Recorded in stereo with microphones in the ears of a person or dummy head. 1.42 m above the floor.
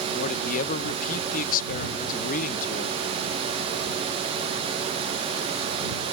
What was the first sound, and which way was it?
A man speaking, 45° left (ahead or behind).